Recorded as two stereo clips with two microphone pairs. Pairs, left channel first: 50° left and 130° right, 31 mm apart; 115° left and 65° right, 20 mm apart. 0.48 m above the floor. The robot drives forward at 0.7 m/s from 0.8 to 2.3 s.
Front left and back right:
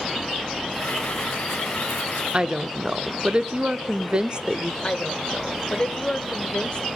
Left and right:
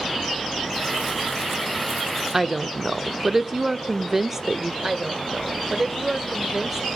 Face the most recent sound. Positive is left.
turn(degrees=0)